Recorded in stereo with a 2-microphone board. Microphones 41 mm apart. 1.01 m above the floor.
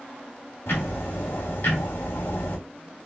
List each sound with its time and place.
0.7 s ticking: 75° left (ahead or behind), 1.8 m